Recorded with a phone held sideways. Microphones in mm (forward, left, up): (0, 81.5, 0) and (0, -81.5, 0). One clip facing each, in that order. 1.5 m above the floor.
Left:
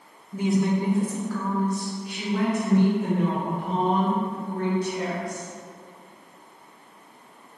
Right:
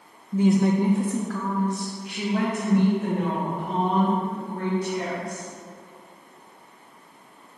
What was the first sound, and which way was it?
A woman speaking, 20° right (ahead or behind).